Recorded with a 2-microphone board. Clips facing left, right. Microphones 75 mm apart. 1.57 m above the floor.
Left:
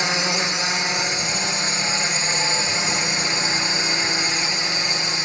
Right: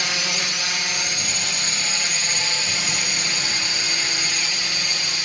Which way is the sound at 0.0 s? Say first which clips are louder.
Left 4 dB; 25° left (ahead or behind).